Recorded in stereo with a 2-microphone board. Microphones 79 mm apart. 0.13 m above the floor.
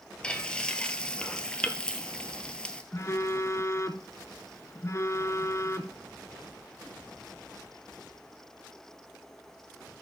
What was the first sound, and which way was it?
Frying, 15° left (ahead or behind).